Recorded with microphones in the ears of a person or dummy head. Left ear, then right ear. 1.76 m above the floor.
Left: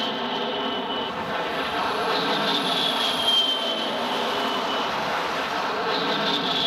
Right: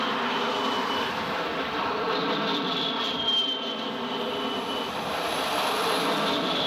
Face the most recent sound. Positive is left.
turn(degrees=25)  # may be behind; listen again after turning